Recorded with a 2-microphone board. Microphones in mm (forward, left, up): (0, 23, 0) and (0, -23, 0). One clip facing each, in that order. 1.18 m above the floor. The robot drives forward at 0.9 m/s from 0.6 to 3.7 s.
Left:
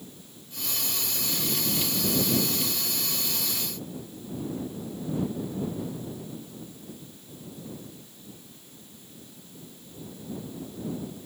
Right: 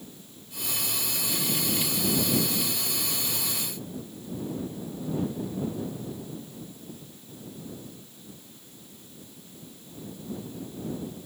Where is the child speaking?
I don't hear a child speaking.